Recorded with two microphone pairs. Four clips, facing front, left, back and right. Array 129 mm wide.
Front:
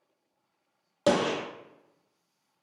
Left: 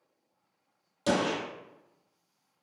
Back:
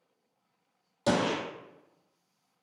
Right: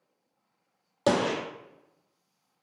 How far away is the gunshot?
About 0.8 m.